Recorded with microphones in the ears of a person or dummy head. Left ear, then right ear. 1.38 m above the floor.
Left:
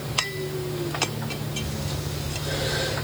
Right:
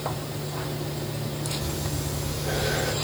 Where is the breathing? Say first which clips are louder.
Right 1 dB; 85° right, 5.5 m.